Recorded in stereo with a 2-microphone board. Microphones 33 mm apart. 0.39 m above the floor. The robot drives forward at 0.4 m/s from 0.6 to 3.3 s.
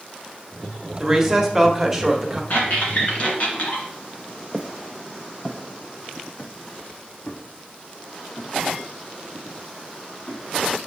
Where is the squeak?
55° left (ahead or behind), 1.9 m; by 3.9 s 45° left (ahead or behind), 2 m.